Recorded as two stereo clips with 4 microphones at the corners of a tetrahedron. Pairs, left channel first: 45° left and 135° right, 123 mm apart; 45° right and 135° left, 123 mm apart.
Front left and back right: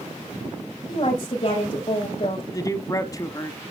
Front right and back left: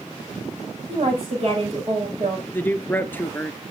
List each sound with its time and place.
0.9 s a woman speaking: 95° left, 7.5 m
2.5 s a man speaking: 15° left, 1.2 m